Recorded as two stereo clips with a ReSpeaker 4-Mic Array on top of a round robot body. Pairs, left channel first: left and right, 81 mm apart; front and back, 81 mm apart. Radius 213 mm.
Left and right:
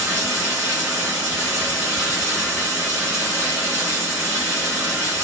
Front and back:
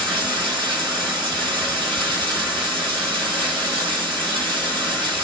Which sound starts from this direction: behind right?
Running water, at 0.0 s.